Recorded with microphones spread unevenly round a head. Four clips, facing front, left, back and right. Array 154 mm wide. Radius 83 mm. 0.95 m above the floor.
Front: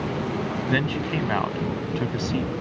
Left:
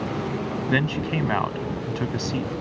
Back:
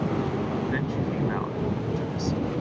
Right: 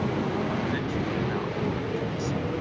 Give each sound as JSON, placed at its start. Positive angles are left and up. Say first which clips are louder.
{"t": 0.7, "sound": "a man speaking", "louder": "left 4 dB, front 3 dB", "azimuth_deg": 50}